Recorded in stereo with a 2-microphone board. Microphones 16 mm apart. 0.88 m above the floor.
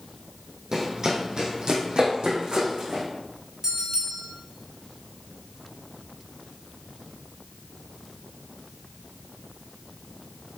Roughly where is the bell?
Right.